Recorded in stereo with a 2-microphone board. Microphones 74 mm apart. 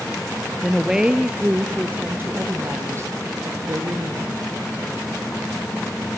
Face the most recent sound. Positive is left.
turn(degrees=-50)  # may be behind; listen again after turning